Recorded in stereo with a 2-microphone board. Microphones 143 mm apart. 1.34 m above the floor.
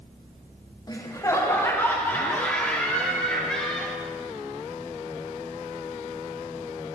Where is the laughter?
25° left (ahead or behind), 1.3 m; by 4.0 s 5° left (ahead or behind), 3 m.